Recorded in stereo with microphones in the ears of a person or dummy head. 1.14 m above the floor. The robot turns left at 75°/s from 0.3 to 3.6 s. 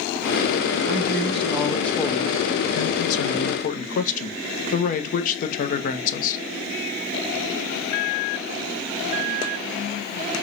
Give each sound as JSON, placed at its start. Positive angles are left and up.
{"t": 0.9, "sound": "a man speaking", "azimuth_deg": -110, "distance_m": 0.8}